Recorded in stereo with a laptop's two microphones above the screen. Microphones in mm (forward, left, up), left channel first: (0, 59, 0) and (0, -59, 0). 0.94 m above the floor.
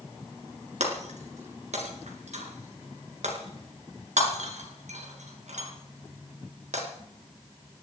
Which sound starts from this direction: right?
Breaking glass, at 0.8 s.